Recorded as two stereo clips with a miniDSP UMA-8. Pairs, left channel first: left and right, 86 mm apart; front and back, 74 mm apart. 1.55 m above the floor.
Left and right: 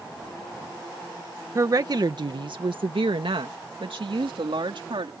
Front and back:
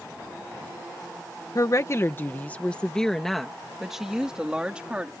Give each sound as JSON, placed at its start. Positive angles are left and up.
{"t": 1.6, "sound": "a woman speaking", "azimuth_deg": -40}